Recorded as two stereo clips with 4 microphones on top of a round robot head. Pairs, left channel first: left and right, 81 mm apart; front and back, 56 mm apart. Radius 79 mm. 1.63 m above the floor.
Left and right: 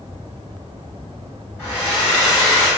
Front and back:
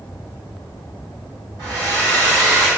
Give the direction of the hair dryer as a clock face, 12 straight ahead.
7 o'clock.